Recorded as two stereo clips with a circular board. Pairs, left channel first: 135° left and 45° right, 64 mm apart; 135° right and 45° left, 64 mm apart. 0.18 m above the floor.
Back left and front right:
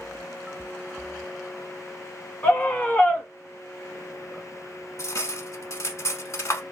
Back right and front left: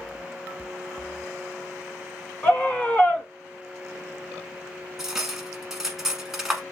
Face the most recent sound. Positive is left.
turn(degrees=130)